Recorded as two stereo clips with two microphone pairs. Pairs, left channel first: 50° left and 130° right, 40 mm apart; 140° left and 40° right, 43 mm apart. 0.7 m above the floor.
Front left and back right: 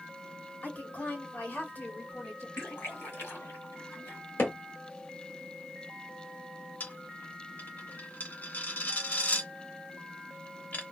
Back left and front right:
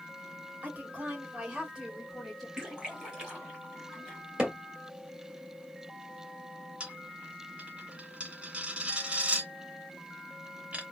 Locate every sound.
0.6 s a woman speaking: 10° left, 1.8 m; by 2.5 s 50° left, 1.2 m
2.6 s a splash: 35° left, 1.8 m
4.4 s hammering: 30° left, 1.5 m
6.8 s a dropped coin: 20° left, 0.6 m